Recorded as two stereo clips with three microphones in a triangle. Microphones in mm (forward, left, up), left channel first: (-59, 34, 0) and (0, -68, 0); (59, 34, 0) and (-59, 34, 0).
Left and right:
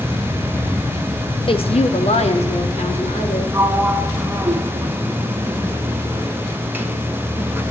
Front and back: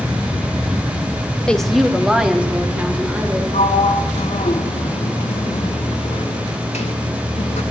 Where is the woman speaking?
80° left, 1.0 m; by 3.4 s 105° left, 4 m.